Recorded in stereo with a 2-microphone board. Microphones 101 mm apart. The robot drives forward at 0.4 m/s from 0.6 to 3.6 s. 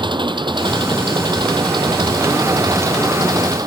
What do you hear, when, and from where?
0.0 s an engine running: 50° right (ahead or behind); by 3.7 s 40° right (ahead or behind)